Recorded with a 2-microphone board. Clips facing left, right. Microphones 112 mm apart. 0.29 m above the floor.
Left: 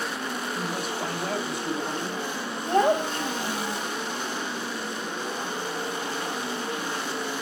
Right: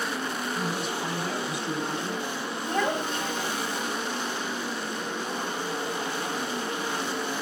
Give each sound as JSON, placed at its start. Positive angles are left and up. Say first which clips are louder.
{"t": 0.5, "sound": "a man speaking", "louder": "even", "side_deg": 50, "distance_m": 2.5}
{"t": 2.7, "sound": "a child speaking", "louder": "left 6 dB", "side_deg": 40, "distance_m": 1.0}